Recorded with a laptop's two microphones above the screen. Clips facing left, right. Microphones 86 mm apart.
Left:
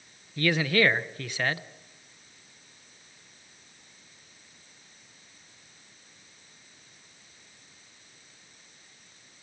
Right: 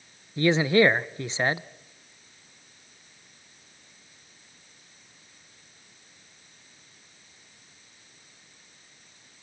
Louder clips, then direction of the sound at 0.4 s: Right 4 dB; 20° right (ahead or behind).